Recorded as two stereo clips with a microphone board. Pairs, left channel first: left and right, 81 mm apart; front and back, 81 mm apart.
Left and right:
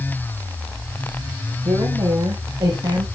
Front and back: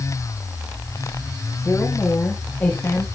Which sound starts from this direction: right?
A woman speaking, at 1.6 s.